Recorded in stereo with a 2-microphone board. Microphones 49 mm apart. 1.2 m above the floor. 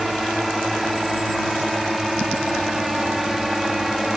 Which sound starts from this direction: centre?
A drone, at 0.0 s.